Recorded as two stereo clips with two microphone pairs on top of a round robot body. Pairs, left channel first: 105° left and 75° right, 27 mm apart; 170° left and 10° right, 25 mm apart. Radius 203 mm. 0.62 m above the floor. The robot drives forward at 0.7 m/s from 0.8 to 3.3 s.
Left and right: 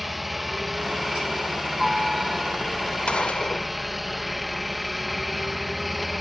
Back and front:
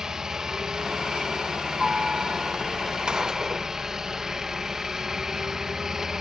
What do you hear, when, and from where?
0.0 s a helicopter: 5° left
3.1 s a gunshot: 50° left; by 3.7 s 55° left